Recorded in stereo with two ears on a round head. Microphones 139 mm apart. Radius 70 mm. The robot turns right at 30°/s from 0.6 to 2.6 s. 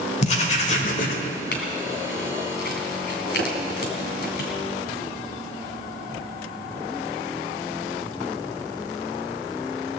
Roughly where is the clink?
Left.